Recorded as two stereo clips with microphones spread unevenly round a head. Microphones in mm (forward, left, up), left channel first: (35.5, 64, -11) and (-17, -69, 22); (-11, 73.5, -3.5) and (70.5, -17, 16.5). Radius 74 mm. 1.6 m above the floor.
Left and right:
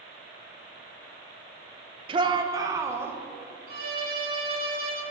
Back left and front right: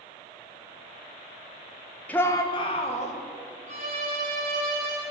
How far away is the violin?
About 2 m.